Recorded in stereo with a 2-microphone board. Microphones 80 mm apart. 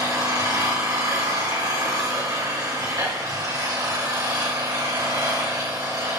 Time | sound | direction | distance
0.0 | an engine running | 45° right (ahead or behind) | 3 m